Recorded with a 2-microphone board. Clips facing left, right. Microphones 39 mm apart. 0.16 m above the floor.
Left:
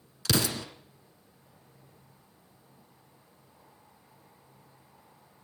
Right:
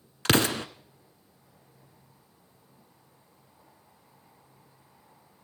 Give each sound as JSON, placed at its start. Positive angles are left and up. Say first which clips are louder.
{"t": 0.2, "sound": "an explosion", "louder": "right 5 dB", "side_deg": -45, "distance_m": 1.0}